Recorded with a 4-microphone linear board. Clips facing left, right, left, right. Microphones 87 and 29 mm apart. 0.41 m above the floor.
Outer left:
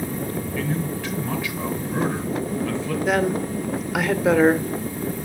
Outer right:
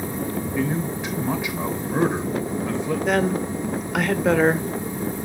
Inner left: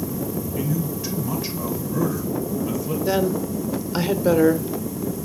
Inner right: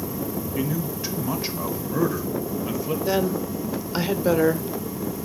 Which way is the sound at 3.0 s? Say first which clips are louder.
Outer left 1 dB, inner left 3 dB; 5° left (ahead or behind).